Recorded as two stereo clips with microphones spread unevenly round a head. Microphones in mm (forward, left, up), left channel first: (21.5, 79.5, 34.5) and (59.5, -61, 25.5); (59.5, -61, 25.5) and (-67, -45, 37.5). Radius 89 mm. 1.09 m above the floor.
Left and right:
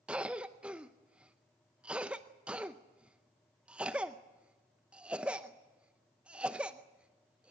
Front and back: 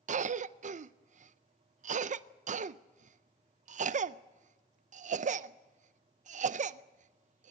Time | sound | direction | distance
0.1 | a cough | 160° right | 0.5 m